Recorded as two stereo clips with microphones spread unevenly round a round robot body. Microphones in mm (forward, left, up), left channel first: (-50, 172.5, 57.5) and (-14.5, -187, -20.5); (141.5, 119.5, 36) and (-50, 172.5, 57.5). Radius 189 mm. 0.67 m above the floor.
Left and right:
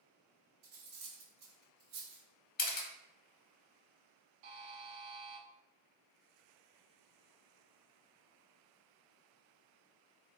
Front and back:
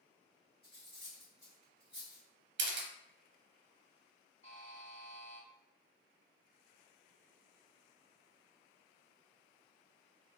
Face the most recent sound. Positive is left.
turn(degrees=-95)